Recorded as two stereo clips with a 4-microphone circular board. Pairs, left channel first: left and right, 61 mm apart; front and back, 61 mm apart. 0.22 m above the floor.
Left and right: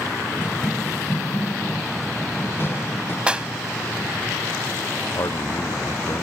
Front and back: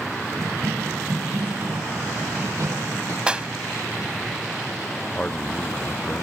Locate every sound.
0.4 s running footsteps: 145° left
3.3 s a clap: 135° right
5.1 s a man speaking: 65° left